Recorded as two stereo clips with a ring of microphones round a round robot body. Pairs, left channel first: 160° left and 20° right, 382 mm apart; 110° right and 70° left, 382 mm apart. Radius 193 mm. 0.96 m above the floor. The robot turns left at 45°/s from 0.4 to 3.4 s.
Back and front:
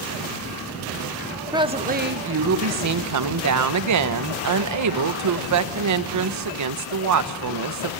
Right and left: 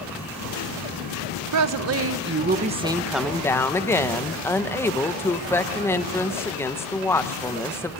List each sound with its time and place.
1.5 s a woman speaking: 55° left, 0.9 m; by 8.0 s 30° right, 0.9 m